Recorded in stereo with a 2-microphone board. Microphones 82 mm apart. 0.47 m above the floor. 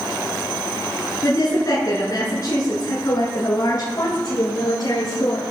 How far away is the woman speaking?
About 7 m.